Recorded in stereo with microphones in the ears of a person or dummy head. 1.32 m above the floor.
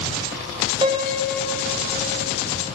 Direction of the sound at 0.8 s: 25° right (ahead or behind).